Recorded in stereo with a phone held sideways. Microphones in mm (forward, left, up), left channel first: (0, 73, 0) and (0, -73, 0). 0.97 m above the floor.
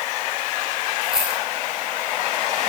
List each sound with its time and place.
1.0 s a dropped coin: 5° right (ahead or behind), 7.5 m